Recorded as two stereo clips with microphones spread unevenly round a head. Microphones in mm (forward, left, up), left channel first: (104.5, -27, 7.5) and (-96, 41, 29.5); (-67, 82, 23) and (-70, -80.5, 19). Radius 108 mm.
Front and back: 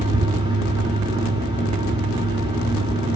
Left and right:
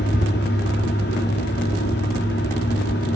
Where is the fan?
95° left, 3 m.